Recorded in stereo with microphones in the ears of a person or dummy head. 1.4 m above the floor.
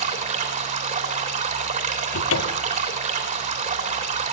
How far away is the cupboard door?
About 1.5 m.